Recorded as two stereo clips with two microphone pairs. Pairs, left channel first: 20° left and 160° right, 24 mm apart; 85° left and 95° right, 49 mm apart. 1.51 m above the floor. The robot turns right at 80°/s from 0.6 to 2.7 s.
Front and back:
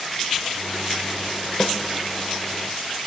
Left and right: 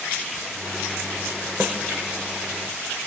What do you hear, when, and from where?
1.6 s a snare drum: 40° right, 0.8 m; by 1.8 s 25° right, 0.8 m